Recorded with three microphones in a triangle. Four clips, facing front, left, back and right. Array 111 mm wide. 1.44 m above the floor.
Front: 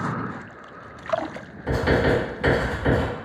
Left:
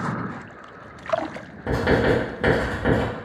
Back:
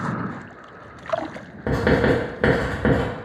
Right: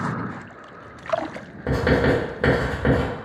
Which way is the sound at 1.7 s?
170° right.